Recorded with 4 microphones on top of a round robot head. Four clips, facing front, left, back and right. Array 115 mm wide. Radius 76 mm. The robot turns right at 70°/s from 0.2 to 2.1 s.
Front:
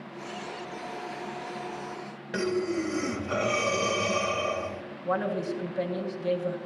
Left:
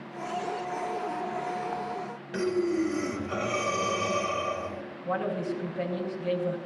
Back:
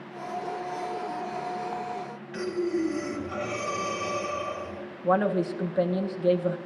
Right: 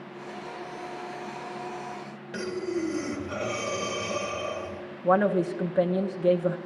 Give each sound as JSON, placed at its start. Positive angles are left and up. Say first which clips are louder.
{"t": 2.3, "sound": "breathing", "louder": "left 4 dB, even", "azimuth_deg": -5, "distance_m": 2.5}
{"t": 5.0, "sound": "a woman speaking", "louder": "right 8 dB, back 5 dB", "azimuth_deg": -115, "distance_m": 1.5}